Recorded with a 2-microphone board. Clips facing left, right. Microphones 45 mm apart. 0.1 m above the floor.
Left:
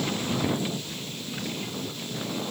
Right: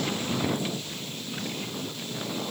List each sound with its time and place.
Only background noise.